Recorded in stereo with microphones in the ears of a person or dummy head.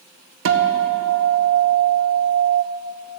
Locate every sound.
0.5 s a guitar: 70° right (ahead or behind), 1.0 m